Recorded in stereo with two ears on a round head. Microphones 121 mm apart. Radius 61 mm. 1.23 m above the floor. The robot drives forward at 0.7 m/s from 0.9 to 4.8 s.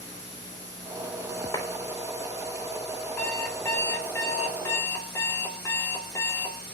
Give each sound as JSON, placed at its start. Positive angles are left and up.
{"t": 1.5, "sound": "a clap", "side_deg": 30, "distance_m": 3.5}
{"t": 3.2, "sound": "an alarm clock", "side_deg": 15, "distance_m": 4.5}